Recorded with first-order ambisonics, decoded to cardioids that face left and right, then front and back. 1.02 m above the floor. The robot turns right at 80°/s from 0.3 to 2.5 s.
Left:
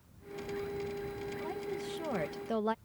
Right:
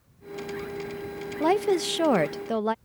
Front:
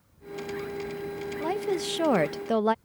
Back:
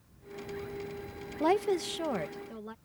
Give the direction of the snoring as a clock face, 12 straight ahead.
No snoring in this recording.